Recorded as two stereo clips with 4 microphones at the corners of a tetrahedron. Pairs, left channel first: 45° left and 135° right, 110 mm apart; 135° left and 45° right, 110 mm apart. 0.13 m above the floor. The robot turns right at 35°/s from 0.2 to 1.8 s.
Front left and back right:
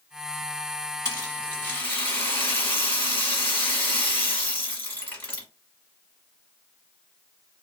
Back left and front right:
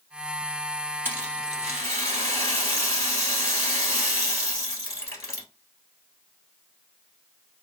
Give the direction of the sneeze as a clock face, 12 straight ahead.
I don't hear a sneeze.